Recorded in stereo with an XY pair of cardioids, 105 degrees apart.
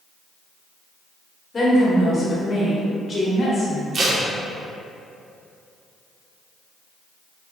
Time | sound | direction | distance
1.5 | a woman speaking | 30° left | 1.1 m
3.9 | tape being pulled | 50° right | 0.6 m